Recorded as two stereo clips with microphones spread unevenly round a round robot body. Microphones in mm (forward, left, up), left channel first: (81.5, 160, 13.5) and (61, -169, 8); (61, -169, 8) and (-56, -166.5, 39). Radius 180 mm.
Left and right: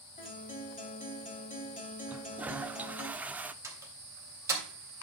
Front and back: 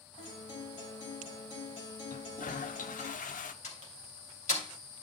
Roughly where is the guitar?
Ahead.